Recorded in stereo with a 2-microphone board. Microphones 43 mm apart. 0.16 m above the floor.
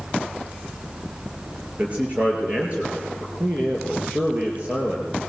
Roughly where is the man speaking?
Right.